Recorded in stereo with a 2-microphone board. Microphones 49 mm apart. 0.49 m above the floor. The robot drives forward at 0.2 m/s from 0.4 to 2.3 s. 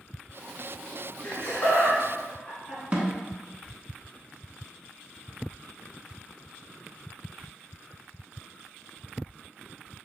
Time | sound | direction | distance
1.2 | laughter | 35° left (ahead or behind) | 1.6 m
2.9 | a snare drum | 30° right (ahead or behind) | 0.8 m